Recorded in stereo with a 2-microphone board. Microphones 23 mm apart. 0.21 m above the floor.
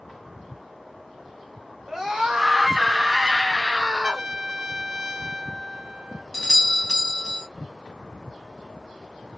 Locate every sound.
1.9 s a scream: 30° right (ahead or behind), 2.5 m
4.0 s a trumpet: 40° right (ahead or behind), 2 m
6.3 s a doorbell: 25° left (ahead or behind), 1.6 m